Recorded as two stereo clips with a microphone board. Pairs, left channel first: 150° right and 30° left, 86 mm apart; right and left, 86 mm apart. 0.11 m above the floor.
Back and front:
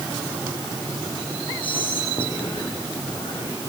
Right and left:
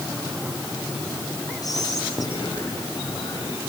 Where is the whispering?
135° right, 5 m.